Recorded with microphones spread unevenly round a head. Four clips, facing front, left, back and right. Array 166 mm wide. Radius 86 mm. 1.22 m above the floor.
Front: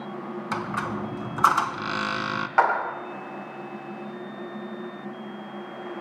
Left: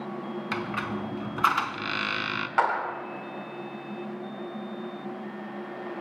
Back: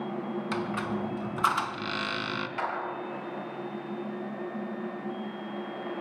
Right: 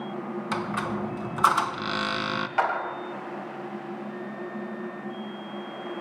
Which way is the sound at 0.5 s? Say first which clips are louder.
Right 3 dB, front 4 dB; 45° right.